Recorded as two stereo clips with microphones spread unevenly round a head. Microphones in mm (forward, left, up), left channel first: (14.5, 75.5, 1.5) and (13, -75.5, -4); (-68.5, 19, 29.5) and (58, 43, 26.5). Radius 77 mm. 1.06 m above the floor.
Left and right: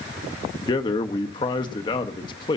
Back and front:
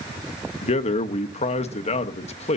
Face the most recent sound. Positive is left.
turn(degrees=155)